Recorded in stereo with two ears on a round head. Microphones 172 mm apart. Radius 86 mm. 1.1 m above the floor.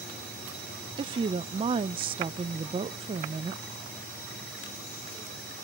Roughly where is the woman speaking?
Right.